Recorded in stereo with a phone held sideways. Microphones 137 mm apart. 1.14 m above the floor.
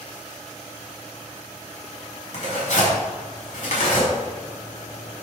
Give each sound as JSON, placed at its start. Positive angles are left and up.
{"t": 2.3, "sound": "tearing paper", "side_deg": 65, "distance_m": 5.5}